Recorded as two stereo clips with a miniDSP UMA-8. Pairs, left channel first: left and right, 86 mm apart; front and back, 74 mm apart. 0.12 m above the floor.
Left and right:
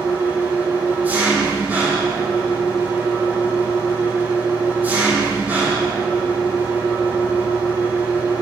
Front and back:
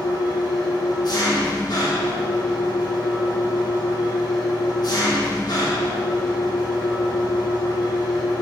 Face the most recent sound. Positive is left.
turn(degrees=-20)